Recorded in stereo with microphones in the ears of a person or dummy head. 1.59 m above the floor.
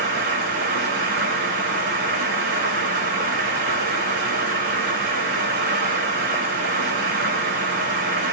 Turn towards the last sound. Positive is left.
turn(degrees=-50)  # may be behind; listen again after turning